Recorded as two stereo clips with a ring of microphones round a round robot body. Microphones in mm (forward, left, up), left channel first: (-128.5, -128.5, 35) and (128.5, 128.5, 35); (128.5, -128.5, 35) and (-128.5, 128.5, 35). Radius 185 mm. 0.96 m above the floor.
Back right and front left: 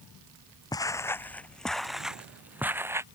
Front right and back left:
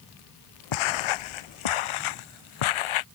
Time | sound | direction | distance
0.7 | footsteps | 55° right | ?